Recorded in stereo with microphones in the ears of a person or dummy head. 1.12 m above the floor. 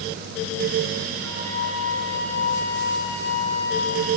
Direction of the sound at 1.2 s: 75° right (ahead or behind).